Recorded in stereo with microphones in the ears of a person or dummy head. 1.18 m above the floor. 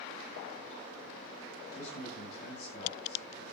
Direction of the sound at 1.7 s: 50° left (ahead or behind).